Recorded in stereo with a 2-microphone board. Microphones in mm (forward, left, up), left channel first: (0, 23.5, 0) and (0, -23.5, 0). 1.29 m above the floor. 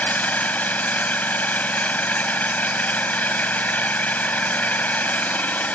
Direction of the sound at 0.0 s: 35° left (ahead or behind).